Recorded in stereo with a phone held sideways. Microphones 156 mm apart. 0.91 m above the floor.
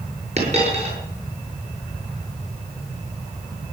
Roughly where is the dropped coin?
Right.